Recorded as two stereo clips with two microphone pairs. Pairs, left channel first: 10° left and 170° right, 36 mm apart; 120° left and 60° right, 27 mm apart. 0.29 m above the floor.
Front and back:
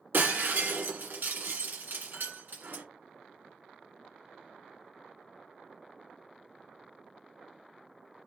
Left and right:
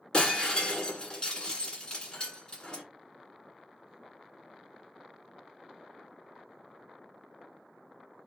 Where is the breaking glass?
175° left, 1.7 m.